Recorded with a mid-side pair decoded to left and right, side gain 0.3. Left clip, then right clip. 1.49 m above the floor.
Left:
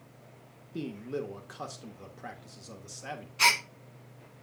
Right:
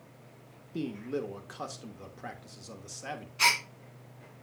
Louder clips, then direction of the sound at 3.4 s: Left 1 dB; 20° left.